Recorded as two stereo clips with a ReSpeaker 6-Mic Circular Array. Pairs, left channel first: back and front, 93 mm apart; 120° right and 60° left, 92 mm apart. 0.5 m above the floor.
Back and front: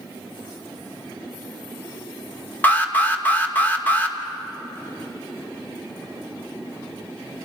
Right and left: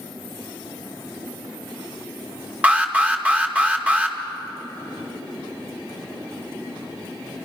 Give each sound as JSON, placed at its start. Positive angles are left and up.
{"t": 2.6, "sound": "an alarm", "azimuth_deg": 120, "distance_m": 2.5}